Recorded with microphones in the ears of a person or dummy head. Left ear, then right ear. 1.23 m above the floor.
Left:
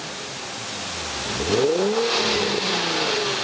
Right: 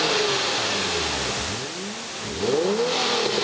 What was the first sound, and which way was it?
Only background noise.